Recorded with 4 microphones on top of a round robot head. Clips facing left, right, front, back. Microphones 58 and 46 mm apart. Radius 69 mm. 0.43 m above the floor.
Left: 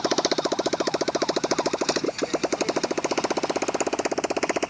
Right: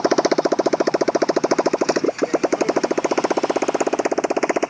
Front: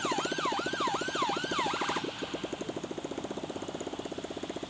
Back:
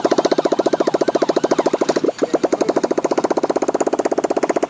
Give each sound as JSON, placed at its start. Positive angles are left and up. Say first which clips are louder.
{"t": 0.0, "sound": "a motorcycle", "louder": "right 7 dB, back 16 dB", "azimuth_deg": -150}